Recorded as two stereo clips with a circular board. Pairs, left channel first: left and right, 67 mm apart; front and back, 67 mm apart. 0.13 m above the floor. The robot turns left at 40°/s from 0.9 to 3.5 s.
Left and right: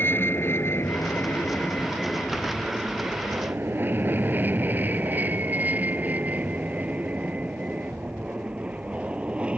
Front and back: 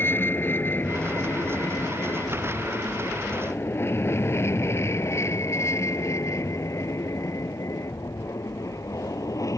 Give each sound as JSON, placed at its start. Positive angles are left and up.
{"t": 0.0, "sound": "an aircraft", "azimuth_deg": 45}